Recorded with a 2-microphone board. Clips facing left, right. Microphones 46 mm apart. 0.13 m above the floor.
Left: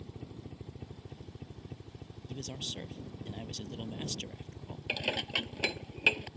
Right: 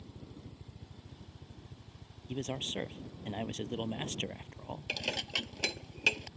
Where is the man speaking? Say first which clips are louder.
Right 5 dB; 30° right (ahead or behind).